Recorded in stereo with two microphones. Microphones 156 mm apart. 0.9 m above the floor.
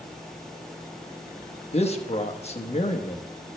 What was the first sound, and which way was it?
A man speaking, 40° left (ahead or behind).